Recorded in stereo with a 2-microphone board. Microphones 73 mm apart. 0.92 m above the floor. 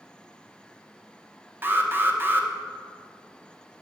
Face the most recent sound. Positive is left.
turn(degrees=-30)  # may be behind; listen again after turning